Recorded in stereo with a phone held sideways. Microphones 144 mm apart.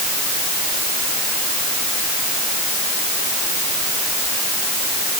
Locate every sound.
Only background noise.